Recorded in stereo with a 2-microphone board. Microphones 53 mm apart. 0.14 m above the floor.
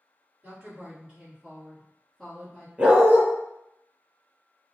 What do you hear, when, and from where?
0.4 s a woman speaking: 35° right (ahead or behind), 1.7 m; by 2.7 s 15° left (ahead or behind), 1.5 m
2.8 s a dog barking: 25° right (ahead or behind), 1.1 m